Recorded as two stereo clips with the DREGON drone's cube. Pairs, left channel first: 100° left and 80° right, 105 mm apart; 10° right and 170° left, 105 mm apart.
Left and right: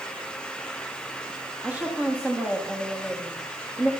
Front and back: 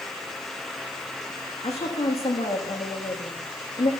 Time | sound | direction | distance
1.6 | a woman speaking | straight ahead | 8 m